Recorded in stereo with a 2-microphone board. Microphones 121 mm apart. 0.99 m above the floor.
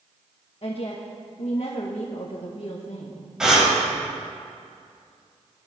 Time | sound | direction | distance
0.6 | a woman speaking | 55° left (ahead or behind) | 1.3 m
3.4 | breathing | 5° right (ahead or behind) | 2.5 m